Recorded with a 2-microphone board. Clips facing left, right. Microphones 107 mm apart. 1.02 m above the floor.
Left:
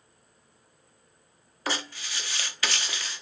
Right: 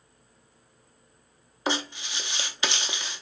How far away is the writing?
About 0.5 m.